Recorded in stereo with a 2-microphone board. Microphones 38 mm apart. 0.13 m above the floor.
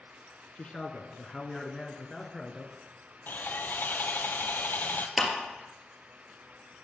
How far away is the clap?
About 2.5 m.